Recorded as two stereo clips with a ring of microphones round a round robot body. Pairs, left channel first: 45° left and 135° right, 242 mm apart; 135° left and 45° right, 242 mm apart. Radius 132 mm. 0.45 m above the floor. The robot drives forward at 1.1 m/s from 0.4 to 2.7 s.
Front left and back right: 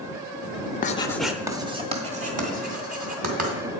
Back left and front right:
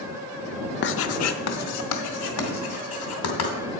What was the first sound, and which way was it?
Writing, 95° left.